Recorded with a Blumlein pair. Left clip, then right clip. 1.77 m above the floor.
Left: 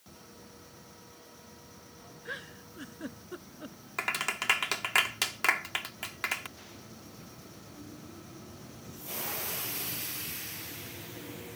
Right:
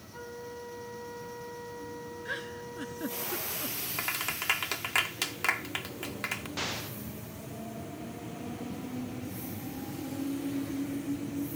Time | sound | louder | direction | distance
0.1 | a flute | right 12 dB | 55° right | ?
2.2 | a giggle | right 3 dB | 10° right | ?
4.0 | a clap | left 3 dB | 5° left | ?
6.6 | an explosion | right 15 dB | 40° right | ?